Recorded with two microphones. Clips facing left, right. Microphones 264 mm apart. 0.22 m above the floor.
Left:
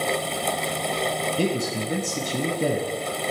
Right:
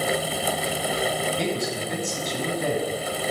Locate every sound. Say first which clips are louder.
1.4 s a man speaking: left 2 dB; 30° left (ahead or behind), 1.1 m